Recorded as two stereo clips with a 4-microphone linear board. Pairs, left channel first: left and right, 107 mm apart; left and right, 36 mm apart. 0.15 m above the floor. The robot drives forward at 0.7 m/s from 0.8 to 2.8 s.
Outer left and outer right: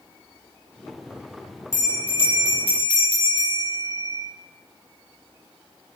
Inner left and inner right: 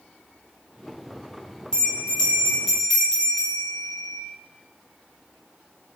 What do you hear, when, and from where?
1.7 s a bell: 20° left (ahead or behind), 1.9 m; by 4.2 s 15° left (ahead or behind), 2.5 m